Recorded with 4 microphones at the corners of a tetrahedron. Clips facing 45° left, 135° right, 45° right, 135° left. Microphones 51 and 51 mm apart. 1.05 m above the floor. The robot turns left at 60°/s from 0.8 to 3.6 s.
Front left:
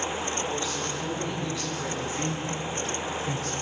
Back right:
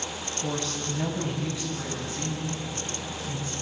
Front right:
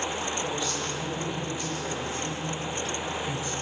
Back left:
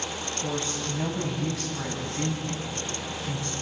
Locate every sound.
0.4 s a woman speaking: 160° right, 8.5 m; by 3.5 s 35° left, 8.5 m